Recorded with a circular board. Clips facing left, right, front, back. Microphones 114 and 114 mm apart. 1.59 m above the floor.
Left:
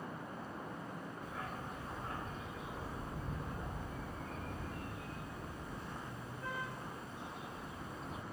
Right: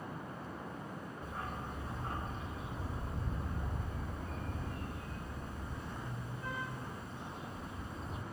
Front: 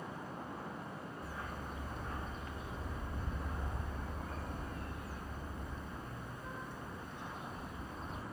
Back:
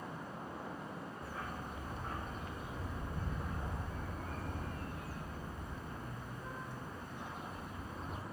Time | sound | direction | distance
1.2 | a dog barking | 150° right | 6 m